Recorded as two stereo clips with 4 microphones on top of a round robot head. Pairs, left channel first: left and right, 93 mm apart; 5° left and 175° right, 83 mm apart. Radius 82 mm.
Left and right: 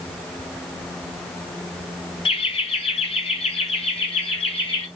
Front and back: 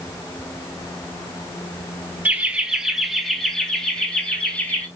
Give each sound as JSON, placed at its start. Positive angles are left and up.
{"t": 2.2, "sound": "laughter", "azimuth_deg": 110, "distance_m": 1.6}